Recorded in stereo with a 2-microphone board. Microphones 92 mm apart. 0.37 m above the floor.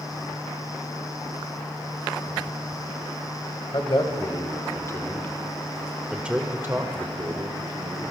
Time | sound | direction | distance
3.7 | a man speaking | 55° left (ahead or behind) | 1.6 m